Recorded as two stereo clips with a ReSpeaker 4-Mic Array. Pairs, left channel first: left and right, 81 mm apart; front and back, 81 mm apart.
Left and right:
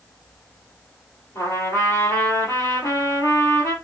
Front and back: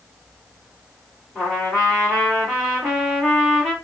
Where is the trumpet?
80° left, 2.5 m.